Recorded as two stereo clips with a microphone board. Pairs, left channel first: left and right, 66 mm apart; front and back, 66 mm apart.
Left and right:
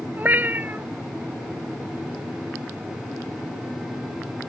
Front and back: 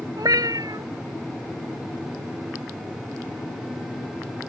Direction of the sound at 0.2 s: 155° right.